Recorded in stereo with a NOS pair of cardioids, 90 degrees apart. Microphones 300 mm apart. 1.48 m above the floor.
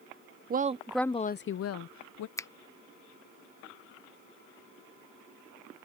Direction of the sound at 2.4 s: 10° left.